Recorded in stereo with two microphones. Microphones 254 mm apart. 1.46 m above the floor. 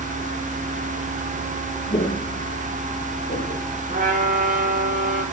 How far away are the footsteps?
About 3 m.